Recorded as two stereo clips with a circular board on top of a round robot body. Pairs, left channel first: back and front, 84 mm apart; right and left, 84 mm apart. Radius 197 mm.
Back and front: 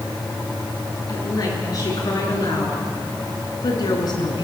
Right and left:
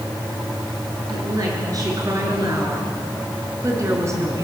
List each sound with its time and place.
1.1 s a woman speaking: 130° left, 7.5 m; by 4.4 s 145° left, 5 m